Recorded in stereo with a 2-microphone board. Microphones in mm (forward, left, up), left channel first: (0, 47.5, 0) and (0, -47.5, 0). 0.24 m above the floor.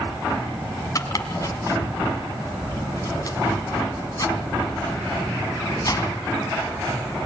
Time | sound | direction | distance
0.9 | chopping | 35° left (ahead or behind) | 2 m